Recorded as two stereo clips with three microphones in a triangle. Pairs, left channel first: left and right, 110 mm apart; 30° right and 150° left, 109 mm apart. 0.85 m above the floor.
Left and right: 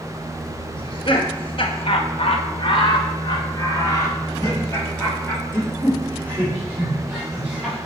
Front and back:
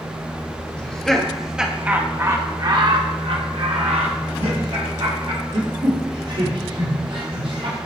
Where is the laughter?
50° left, 1.2 m; by 7.8 s 170° left, 3 m.